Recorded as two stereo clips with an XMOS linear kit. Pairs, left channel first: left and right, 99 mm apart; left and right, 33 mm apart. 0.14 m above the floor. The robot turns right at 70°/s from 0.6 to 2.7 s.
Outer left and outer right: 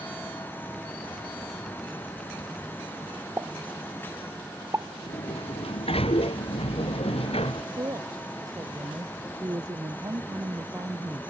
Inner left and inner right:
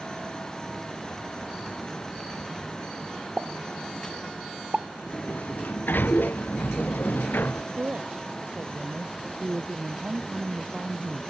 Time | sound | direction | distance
3.4 | a pop | 30° right (ahead or behind) | ?
5.1 | a sliding door | 75° left (ahead or behind) | ?
7.7 | a woman speaking | 40° right (ahead or behind) | ?